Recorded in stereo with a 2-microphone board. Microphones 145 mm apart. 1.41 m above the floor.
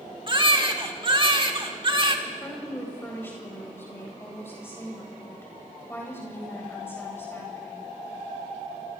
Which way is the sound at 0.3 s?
35° right (ahead or behind).